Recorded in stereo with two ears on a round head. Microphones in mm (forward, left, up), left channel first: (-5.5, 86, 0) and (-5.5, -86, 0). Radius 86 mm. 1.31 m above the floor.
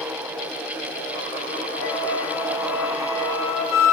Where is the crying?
No crying in this recording.